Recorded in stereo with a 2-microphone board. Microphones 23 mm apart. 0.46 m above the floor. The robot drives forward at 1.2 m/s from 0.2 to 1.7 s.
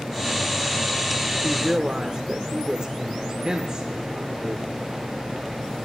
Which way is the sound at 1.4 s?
35° right (ahead or behind).